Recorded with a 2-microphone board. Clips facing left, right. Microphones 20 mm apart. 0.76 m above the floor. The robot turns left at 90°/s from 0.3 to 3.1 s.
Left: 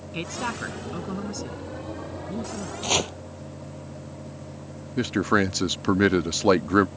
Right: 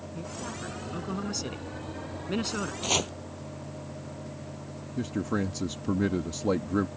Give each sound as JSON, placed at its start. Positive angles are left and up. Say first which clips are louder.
{"t": 0.1, "sound": "a woman speaking", "louder": "left 9 dB", "azimuth_deg": 75}
{"t": 2.8, "sound": "chopping", "louder": "left 4 dB", "side_deg": 0}
{"t": 5.0, "sound": "a man speaking", "louder": "left 8 dB", "side_deg": 55}